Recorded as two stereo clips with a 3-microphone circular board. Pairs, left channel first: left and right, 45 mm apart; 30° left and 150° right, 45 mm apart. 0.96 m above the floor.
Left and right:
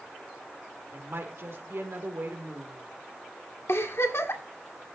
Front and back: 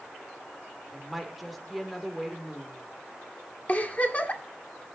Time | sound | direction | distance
0.9 | a woman speaking | 60° right | 3 m
3.7 | a giggle | 85° left | 1.9 m